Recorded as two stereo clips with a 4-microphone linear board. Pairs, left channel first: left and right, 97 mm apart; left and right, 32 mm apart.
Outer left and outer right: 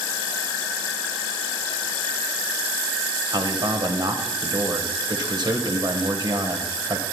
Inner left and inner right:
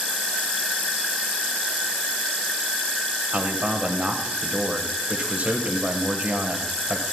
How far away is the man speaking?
About 1.5 m.